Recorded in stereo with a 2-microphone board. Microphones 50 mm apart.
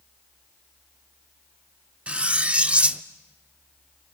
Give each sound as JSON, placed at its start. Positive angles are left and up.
{"t": 2.1, "sound": "cutlery clinking", "side_deg": -25, "distance_m": 0.6}